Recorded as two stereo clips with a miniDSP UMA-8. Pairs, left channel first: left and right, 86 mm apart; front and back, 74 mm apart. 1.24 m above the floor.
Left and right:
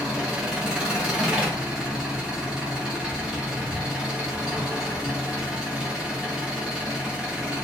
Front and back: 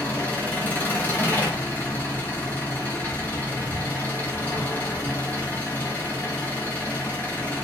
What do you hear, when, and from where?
0.0 s an engine running: 25° right, 0.9 m